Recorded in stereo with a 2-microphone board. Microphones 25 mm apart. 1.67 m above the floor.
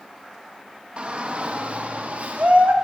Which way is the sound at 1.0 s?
50° right (ahead or behind).